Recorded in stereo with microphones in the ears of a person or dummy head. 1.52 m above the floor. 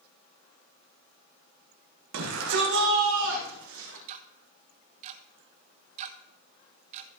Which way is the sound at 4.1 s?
35° right (ahead or behind).